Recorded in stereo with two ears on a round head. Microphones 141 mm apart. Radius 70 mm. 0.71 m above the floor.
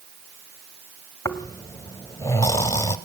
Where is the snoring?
20° left (ahead or behind), 1.1 m.